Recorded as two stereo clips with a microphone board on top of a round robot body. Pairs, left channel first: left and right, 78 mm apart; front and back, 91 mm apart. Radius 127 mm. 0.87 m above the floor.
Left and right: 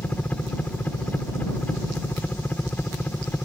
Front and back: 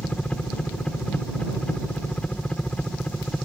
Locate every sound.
0.0 s a helicopter: 60° left